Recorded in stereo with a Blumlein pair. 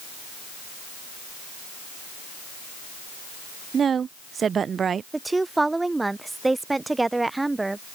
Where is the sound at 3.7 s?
20° right.